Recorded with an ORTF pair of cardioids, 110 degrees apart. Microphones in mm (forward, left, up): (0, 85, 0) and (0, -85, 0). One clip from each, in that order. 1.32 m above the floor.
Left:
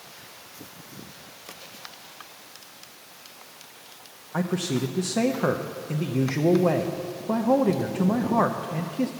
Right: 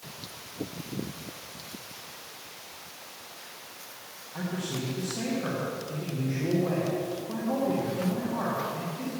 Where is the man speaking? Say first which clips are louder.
Left 7 dB; 65° left, 0.8 m.